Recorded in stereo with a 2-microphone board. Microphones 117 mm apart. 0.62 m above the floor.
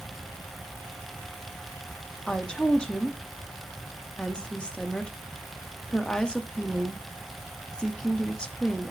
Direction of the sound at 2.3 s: 5° left (ahead or behind).